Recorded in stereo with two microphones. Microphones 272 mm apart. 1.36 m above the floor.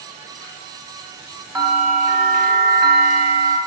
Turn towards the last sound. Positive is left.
turn(degrees=0)  # may be behind; listen again after turning